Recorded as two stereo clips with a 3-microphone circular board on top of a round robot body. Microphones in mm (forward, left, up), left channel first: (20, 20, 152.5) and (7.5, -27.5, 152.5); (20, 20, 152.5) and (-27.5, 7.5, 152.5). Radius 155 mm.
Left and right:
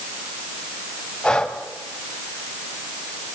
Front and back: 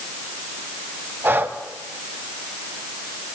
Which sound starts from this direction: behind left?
Breathing, at 1.2 s.